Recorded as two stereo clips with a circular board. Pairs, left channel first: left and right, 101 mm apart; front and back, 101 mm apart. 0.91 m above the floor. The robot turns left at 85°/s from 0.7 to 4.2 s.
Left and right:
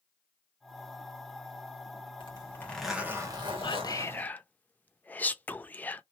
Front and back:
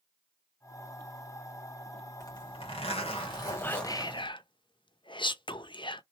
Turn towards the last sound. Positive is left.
turn(degrees=20)